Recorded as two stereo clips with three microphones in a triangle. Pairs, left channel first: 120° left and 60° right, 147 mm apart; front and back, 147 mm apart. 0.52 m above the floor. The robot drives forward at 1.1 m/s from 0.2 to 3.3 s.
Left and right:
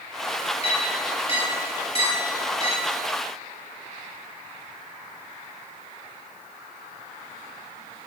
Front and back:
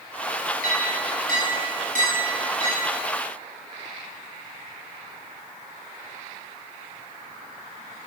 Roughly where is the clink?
Behind.